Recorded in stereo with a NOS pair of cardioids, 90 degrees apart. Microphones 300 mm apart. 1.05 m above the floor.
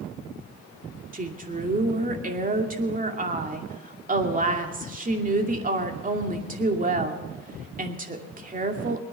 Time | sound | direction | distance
1.1 | a woman speaking | 25° right | 2.5 m